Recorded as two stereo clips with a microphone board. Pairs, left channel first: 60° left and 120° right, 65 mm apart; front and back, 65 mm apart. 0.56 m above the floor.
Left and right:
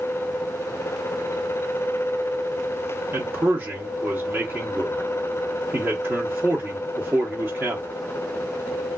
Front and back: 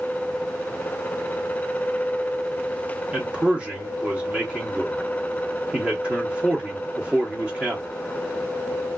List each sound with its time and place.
3.1 s a man speaking: 120° right, 1.1 m